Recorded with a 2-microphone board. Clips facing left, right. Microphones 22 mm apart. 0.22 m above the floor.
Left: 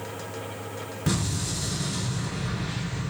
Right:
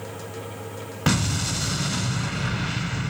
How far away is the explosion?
About 0.9 m.